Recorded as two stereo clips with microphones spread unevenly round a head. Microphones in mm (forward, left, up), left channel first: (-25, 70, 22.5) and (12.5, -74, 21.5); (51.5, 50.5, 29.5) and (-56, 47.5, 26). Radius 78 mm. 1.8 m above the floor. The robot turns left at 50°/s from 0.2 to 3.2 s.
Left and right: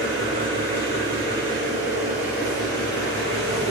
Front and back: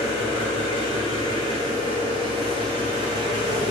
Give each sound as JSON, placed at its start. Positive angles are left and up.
{"t": 0.0, "sound": "an engine running", "azimuth_deg": -45, "distance_m": 1.6}